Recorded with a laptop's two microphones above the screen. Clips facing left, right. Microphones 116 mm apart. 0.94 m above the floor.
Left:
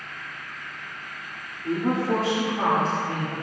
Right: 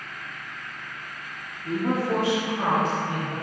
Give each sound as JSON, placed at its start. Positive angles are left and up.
{"t": 1.6, "sound": "a woman speaking", "side_deg": 40, "distance_m": 2.0}